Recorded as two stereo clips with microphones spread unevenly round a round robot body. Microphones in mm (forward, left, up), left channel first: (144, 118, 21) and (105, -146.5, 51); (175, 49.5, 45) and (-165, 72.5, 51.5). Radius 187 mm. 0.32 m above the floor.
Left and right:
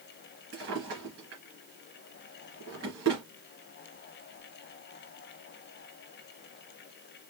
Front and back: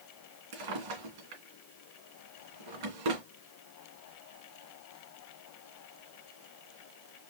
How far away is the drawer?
About 2.5 m.